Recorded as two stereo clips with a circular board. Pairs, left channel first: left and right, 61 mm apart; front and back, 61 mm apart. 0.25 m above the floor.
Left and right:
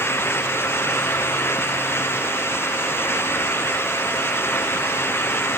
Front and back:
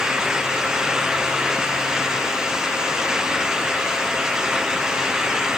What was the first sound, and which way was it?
Only background noise.